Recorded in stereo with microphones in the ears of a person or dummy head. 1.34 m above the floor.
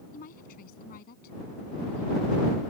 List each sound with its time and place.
0.1 s a woman speaking: 50° left (ahead or behind); by 2.6 s 55° left (ahead or behind)